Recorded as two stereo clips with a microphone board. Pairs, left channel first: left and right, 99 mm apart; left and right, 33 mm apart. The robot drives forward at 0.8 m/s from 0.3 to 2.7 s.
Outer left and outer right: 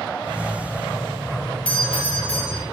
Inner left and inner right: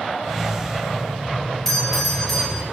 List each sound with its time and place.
1.6 s a doorbell: 10° left (ahead or behind), 5 m